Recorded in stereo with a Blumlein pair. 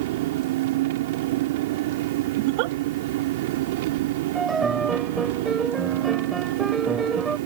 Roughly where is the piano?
Ahead.